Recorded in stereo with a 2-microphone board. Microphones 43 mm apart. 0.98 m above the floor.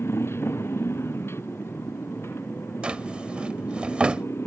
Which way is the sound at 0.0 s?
75° left (ahead or behind).